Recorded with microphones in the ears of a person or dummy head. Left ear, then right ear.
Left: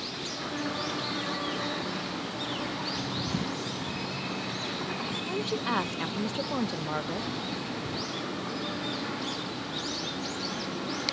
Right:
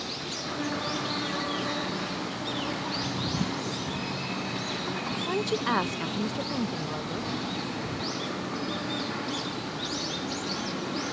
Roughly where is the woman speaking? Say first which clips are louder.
Right 4 dB; right.